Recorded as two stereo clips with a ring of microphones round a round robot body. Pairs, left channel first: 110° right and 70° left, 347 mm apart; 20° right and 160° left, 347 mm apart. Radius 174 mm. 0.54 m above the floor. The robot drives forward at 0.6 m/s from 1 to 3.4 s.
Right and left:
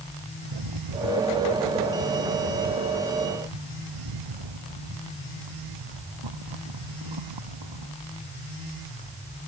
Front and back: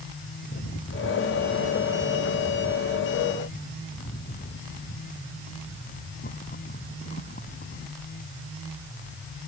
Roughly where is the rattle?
Ahead left.